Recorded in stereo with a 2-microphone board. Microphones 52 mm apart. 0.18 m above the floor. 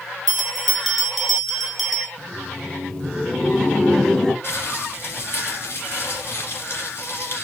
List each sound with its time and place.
0.3 s a bell: 5° right (ahead or behind), 0.8 m
2.2 s laughter: 15° left (ahead or behind), 1.0 m
4.4 s crumpling: 45° left (ahead or behind), 2 m